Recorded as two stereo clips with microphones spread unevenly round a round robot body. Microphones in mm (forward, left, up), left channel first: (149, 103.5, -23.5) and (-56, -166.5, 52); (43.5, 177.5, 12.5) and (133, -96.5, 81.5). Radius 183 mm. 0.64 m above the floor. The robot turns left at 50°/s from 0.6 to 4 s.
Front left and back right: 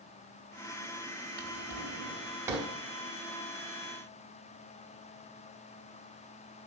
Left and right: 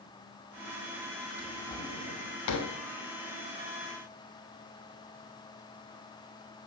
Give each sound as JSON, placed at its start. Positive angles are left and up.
{"t": 1.4, "sound": "a drawer", "azimuth_deg": -155, "distance_m": 1.1}